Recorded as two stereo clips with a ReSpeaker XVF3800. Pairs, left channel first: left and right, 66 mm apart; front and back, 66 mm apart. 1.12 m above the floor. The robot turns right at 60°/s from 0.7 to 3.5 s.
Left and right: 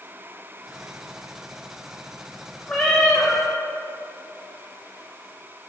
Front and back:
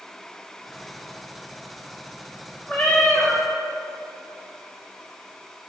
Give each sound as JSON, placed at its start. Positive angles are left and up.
{"t": 2.7, "sound": "a cat meowing", "azimuth_deg": 25, "distance_m": 0.6}